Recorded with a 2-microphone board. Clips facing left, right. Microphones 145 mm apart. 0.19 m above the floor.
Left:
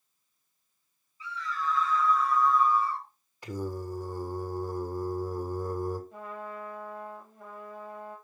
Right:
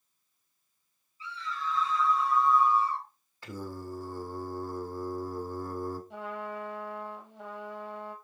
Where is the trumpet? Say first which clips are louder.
Right 2 dB; 80° right, 3 m.